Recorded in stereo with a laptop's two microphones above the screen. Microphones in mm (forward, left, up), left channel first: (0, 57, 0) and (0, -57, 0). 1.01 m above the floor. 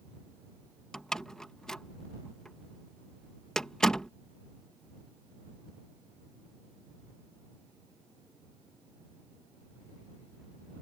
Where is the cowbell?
I don't hear a cowbell.